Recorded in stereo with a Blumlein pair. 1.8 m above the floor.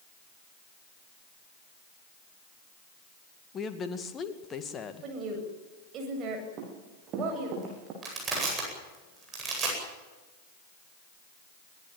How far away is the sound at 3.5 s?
About 2.5 m.